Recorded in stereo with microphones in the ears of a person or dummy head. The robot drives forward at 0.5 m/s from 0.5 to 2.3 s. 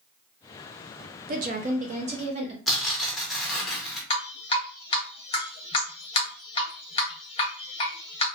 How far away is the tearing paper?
About 0.6 m.